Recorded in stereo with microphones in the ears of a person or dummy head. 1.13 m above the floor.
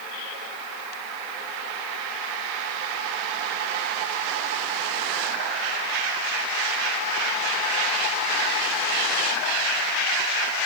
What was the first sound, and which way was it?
Only background noise.